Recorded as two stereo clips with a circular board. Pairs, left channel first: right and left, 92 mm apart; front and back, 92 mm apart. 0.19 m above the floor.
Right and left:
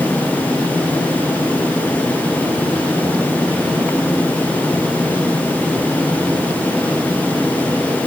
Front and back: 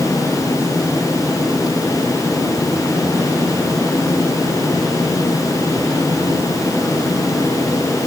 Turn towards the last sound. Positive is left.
No sound to turn to.